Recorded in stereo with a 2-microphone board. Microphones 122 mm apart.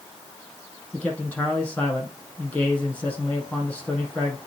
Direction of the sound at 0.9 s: 15° left (ahead or behind).